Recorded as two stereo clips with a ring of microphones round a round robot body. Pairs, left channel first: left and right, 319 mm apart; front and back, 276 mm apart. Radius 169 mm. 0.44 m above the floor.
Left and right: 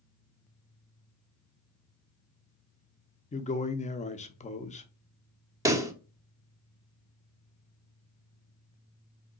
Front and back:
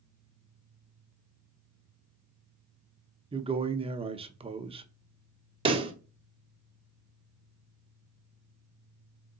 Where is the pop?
150° right, 0.9 m.